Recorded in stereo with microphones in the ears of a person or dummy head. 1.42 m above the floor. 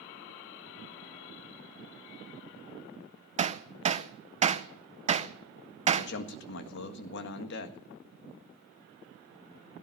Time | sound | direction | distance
3.4 | hammering | 30° right (ahead or behind) | 0.6 m
6.0 | a man speaking | 70° left (ahead or behind) | 1.6 m